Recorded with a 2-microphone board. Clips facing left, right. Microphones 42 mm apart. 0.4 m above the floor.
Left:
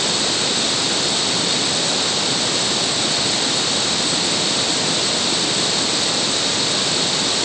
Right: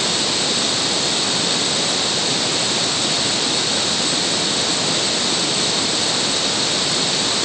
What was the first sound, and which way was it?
Only background noise.